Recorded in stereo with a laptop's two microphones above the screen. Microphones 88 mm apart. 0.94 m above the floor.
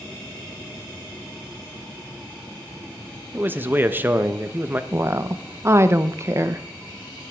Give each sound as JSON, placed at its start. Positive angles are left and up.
{"t": 3.3, "sound": "a man speaking", "side_deg": -20, "distance_m": 0.9}
{"t": 4.9, "sound": "a woman speaking", "side_deg": -30, "distance_m": 0.7}